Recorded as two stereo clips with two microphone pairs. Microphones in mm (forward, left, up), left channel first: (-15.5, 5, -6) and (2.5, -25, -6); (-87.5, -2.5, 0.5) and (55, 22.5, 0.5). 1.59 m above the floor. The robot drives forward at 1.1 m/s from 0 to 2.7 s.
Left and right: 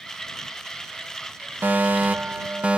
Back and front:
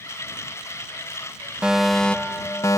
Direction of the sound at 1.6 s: 75° right.